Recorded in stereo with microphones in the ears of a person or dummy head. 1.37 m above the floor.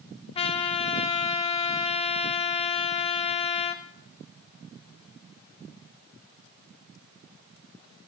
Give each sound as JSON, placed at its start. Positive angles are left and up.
{"t": 0.3, "sound": "a trumpet", "side_deg": 30, "distance_m": 0.9}